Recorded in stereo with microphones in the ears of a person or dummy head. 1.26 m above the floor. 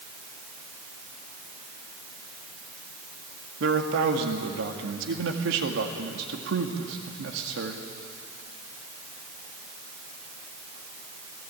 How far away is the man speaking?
About 2 m.